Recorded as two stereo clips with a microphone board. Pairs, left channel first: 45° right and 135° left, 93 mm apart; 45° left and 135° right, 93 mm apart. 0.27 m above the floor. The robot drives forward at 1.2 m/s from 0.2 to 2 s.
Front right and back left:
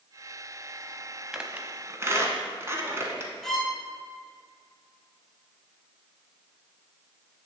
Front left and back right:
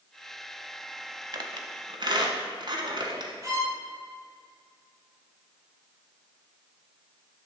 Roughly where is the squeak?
Behind right.